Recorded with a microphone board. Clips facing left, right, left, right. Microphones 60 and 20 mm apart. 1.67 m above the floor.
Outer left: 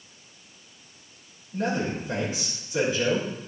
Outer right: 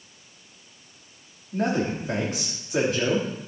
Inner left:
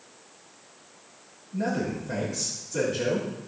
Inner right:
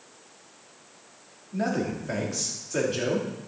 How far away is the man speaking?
About 3 m.